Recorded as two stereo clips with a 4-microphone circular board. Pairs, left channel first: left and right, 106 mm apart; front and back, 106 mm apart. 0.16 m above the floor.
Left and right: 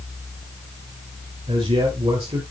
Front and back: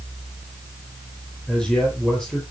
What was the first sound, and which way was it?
A man speaking, 80° right.